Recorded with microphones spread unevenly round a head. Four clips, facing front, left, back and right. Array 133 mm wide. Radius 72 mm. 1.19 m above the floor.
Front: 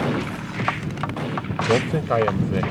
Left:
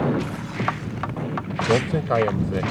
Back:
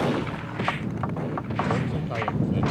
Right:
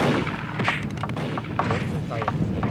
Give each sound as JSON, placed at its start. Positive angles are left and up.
{"t": 1.7, "sound": "a man speaking", "azimuth_deg": 40}